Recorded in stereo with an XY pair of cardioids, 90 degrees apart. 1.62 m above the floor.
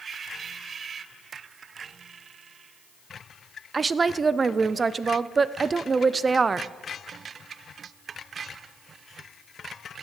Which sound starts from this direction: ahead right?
A woman speaking, at 3.7 s.